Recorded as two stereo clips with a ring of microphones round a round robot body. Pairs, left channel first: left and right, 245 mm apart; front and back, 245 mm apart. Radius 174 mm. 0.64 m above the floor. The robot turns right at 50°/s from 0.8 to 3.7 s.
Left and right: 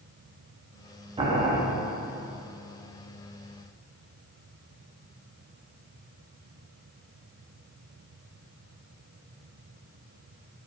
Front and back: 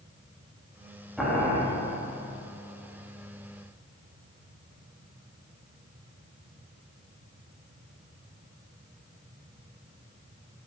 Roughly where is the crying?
I don't hear crying.